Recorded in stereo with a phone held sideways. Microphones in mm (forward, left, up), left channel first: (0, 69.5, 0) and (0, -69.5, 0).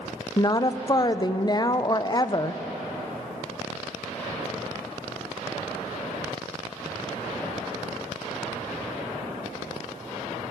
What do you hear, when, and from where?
0.4 s a woman speaking: 30° left (ahead or behind), 0.5 m